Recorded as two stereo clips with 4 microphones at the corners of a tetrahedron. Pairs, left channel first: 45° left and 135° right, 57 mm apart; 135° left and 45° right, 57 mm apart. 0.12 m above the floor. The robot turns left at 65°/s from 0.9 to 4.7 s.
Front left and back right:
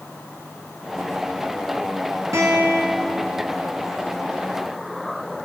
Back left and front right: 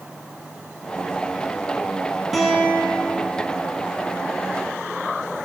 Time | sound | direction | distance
2.3 | a guitar | 130° right | 2 m